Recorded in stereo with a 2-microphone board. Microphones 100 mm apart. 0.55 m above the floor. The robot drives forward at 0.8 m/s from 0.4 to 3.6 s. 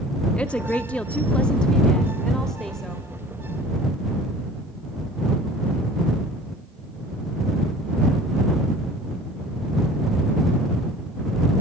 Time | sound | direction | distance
0.4 | a woman speaking | 10° left (ahead or behind) | 0.7 m